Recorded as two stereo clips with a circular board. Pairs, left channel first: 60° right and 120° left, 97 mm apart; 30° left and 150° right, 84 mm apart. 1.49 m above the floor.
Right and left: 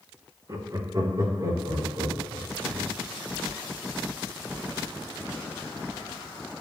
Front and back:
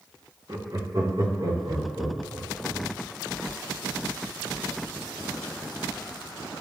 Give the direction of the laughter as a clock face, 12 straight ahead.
6 o'clock.